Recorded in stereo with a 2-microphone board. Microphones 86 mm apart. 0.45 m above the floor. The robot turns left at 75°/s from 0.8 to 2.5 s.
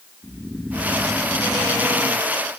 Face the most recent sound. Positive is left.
turn(degrees=65)